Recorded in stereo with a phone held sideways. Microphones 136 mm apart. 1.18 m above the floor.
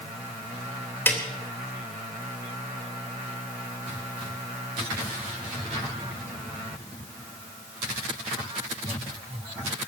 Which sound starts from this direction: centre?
A snare drum, at 1.1 s.